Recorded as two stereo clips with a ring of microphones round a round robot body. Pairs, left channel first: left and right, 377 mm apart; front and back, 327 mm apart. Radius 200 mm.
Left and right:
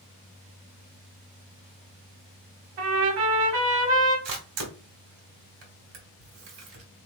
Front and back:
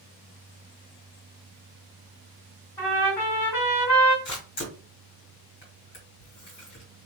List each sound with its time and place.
2.8 s a trumpet: 80° right, 1.7 m
4.2 s a camera shutter: 65° right, 1.6 m